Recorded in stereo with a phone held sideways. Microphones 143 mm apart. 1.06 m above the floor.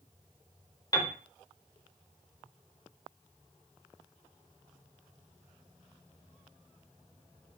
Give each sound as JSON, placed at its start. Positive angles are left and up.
{"t": 0.9, "sound": "a piano", "side_deg": 30, "distance_m": 0.5}